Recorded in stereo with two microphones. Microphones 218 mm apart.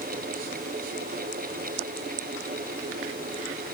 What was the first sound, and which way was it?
Only background noise.